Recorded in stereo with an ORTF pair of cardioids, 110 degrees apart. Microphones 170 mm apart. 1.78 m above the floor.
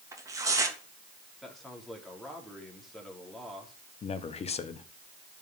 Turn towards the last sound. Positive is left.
turn(degrees=40)